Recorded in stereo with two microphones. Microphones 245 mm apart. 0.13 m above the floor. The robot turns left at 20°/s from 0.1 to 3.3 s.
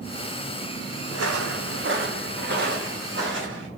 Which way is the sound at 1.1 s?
85° right.